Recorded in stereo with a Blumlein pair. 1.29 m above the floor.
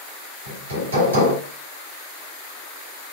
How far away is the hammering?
About 2 m.